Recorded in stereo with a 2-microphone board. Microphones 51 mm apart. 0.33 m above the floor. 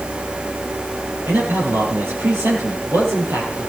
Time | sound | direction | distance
1.3 | a man speaking | 55° right (ahead or behind) | 7 m